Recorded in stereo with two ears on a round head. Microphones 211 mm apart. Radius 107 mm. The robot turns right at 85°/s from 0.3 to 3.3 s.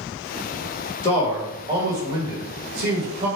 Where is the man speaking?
145° left, 1.4 m; by 3.3 s 25° right, 1.4 m.